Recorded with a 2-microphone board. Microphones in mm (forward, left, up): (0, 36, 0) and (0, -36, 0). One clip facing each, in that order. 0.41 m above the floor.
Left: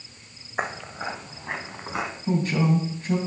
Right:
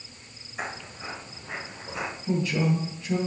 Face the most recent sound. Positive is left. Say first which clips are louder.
# left 2 dB
turn(degrees=45)  # may be behind; listen again after turning